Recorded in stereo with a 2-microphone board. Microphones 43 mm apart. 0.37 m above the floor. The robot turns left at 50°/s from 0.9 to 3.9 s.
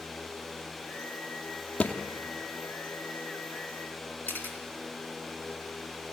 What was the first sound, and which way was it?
A thud, 30° left (ahead or behind).